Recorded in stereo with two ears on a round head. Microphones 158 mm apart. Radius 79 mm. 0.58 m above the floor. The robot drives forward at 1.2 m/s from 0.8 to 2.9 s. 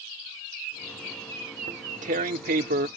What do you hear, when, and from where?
1.7 s tearing paper: 35° right (ahead or behind); by 2.9 s 45° right (ahead or behind)